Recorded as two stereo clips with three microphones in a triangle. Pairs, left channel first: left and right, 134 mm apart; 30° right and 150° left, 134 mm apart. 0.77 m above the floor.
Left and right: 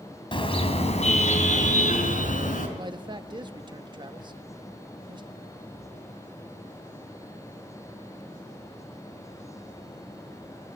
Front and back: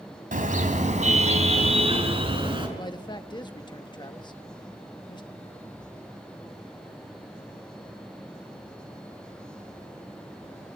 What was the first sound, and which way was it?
A car horn, 140° left.